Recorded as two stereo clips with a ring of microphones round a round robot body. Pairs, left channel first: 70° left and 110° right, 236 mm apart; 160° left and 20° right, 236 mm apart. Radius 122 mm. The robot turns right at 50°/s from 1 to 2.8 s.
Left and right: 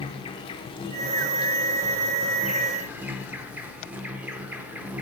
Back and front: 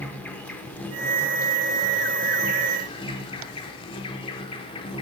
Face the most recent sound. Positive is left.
turn(degrees=175)